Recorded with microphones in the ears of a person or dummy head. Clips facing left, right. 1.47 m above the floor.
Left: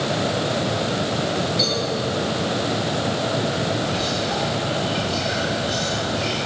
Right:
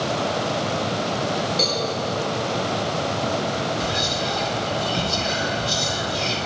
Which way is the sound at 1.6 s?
35° right (ahead or behind).